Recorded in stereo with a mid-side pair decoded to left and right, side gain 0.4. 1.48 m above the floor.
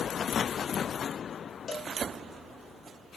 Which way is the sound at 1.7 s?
45° left.